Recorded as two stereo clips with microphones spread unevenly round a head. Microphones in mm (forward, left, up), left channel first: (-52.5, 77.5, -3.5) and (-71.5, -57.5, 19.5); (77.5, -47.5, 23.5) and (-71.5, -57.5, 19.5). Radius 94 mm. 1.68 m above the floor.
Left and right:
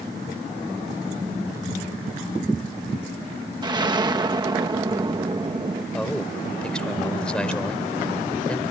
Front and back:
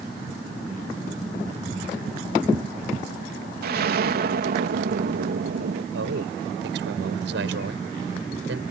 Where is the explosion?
160° right.